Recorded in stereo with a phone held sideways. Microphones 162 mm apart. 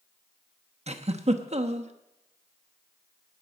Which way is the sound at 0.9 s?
45° right (ahead or behind).